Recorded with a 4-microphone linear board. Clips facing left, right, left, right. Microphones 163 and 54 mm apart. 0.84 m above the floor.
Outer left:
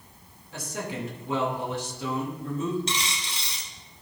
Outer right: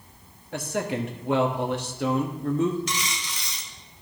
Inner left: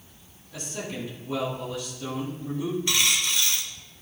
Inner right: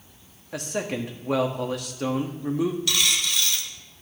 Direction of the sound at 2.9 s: 30° left (ahead or behind).